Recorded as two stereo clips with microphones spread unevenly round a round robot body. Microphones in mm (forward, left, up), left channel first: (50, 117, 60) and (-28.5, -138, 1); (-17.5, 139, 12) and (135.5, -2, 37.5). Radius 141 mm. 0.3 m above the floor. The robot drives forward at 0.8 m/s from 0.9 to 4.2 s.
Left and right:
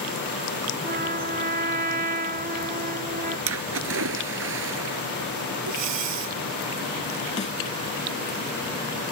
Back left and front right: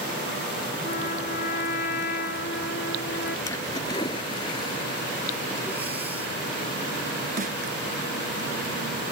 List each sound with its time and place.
0.8 s a trumpet: 165° right; by 3.4 s 170° right
3.5 s a splash: 145° right; by 5.0 s 150° right
5.7 s breathing: 125° right
7.4 s a snare drum: 5° left